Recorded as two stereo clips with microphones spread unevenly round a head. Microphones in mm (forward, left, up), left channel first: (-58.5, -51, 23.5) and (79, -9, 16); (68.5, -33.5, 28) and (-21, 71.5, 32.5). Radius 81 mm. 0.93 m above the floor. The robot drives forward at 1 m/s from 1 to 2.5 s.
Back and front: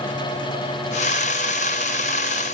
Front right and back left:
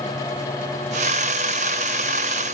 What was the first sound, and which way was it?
Only background noise.